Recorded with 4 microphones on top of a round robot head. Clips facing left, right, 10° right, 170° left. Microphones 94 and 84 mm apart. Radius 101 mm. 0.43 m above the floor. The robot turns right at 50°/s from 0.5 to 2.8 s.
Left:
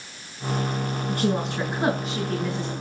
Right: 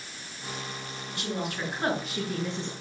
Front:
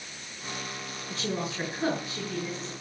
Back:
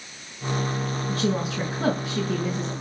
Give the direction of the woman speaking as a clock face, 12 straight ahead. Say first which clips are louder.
Left 7 dB, back 6 dB; 8 o'clock.